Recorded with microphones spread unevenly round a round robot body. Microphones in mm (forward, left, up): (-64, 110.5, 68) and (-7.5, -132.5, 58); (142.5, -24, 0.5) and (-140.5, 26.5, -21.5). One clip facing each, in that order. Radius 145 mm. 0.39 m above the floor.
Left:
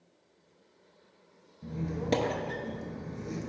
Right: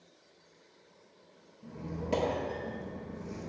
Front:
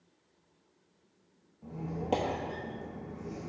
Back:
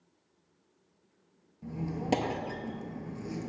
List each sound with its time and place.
1.6 s a squeak: 120° left, 0.6 m